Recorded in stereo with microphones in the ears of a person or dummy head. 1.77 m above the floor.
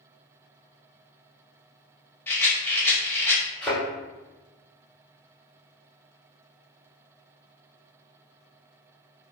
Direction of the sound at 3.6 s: 5° left (ahead or behind).